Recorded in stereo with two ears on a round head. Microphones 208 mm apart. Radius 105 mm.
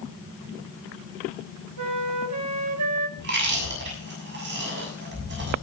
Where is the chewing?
50° right (ahead or behind), 6.5 m.